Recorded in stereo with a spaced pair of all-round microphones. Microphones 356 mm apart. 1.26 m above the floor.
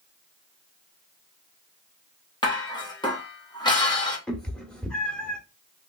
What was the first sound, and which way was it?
Dishes clattering, 10° left (ahead or behind).